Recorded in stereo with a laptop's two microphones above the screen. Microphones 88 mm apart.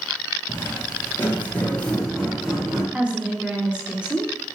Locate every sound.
0.5 s footsteps: 35° left (ahead or behind), 1.2 m; by 2.8 s 5° right (ahead or behind), 1.2 m
2.9 s a woman speaking: 15° right (ahead or behind), 1.0 m